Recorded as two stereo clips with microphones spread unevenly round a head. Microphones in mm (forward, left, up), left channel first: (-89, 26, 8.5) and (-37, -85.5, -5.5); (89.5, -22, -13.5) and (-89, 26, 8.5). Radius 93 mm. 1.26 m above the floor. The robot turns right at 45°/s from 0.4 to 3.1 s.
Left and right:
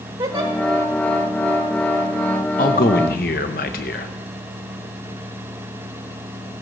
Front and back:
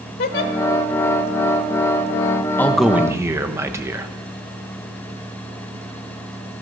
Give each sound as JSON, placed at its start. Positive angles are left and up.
{"t": 0.2, "sound": "a giggle", "azimuth_deg": -5, "distance_m": 1.2}
{"t": 2.6, "sound": "a man speaking", "azimuth_deg": 65, "distance_m": 1.1}